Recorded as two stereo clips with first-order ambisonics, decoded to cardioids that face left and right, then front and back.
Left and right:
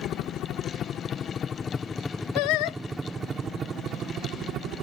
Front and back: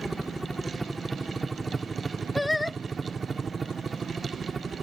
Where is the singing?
85° left.